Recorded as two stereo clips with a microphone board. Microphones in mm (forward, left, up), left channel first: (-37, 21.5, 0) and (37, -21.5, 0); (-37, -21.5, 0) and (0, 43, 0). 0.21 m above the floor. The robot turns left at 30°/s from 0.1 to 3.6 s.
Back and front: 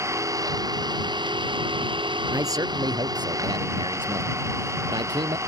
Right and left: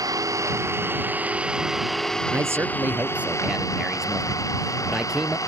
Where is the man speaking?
15° left; by 5.4 s 25° right.